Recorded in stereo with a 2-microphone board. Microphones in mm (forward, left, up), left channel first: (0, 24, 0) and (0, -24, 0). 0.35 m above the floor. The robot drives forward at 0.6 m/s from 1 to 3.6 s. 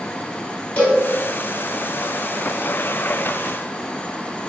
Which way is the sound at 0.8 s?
30° left (ahead or behind).